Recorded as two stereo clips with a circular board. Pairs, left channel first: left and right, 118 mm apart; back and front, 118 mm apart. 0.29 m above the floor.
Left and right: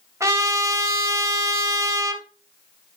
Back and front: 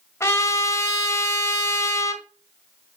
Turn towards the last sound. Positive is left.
turn(degrees=-130)